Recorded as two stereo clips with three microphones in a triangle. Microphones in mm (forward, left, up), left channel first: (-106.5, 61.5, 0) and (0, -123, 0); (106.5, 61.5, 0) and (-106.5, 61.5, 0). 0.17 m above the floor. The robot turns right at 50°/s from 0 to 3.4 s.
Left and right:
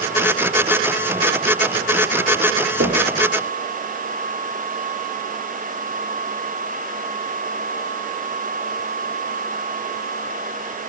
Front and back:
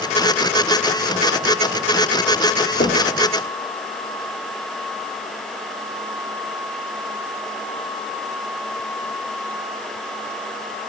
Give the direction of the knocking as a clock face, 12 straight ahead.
1 o'clock.